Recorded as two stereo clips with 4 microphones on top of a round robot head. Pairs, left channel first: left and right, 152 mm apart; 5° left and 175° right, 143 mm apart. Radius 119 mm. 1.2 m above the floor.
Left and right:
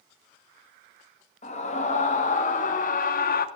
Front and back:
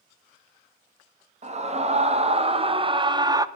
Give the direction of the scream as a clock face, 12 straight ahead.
7 o'clock.